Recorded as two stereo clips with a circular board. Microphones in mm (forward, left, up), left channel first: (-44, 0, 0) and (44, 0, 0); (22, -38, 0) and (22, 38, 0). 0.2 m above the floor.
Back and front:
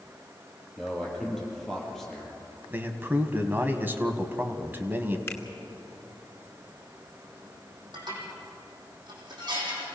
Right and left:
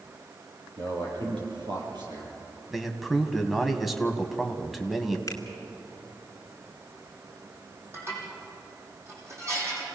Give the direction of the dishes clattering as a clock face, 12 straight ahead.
11 o'clock.